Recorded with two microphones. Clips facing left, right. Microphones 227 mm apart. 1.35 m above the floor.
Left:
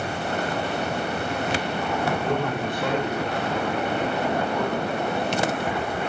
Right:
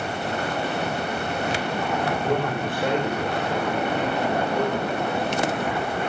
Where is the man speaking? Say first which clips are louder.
Right 1 dB; centre (ahead or behind), 5 m; by 5.2 s 10° right (ahead or behind), 6.5 m.